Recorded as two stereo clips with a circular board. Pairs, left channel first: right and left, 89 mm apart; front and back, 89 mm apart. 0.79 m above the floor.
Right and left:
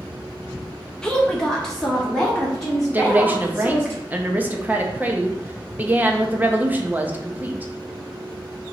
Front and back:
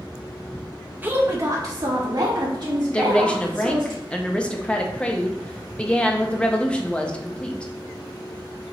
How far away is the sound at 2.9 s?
About 0.6 m.